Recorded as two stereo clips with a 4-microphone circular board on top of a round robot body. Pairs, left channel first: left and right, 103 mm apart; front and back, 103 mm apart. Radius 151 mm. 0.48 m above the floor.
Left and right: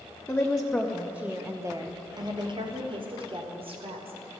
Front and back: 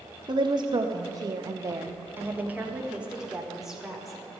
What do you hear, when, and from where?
0.3 s a woman speaking: 160° left, 1.4 m; by 4.3 s 90° right, 2.5 m